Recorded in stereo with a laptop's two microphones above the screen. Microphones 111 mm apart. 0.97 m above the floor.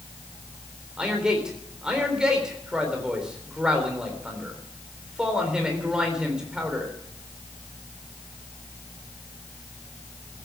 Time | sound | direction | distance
1.0 | a man speaking | 5° right (ahead or behind) | 3.5 m